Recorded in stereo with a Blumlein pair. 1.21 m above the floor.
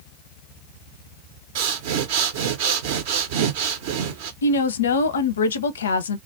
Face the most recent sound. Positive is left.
turn(degrees=65)